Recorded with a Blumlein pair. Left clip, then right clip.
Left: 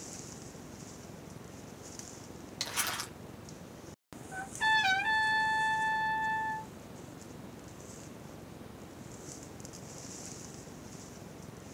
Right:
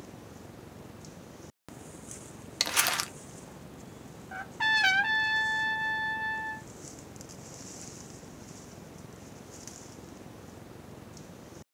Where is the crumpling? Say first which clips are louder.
Right 7 dB; 65° right, 0.5 m.